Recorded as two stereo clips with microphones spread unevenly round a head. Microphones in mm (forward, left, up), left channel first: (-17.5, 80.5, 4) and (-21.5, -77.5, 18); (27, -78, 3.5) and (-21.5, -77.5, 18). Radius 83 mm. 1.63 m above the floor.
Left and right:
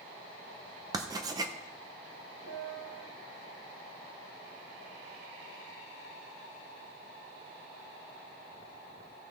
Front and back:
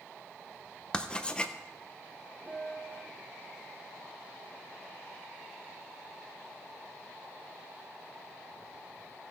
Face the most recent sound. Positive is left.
turn(degrees=-85)